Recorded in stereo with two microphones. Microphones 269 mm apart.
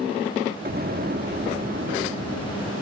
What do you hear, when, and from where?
0.7 s an explosion: 35° right (ahead or behind), 1.5 m